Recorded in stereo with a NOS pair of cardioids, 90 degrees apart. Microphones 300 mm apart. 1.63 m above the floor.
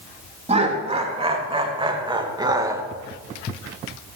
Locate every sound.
0.5 s laughter: 20° right, 3.5 m; by 2.8 s 10° right, 2 m